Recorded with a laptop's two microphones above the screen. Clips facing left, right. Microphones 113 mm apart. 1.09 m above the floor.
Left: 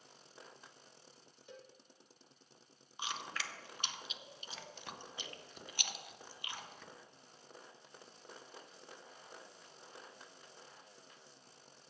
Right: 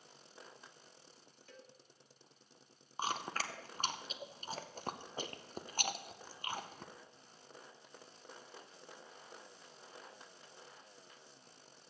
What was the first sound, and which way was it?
A cowbell, 20° left (ahead or behind).